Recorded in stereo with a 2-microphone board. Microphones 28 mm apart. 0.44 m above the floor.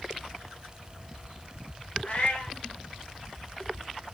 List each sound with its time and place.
2.0 s a cat meowing: 40° left (ahead or behind), 1.7 m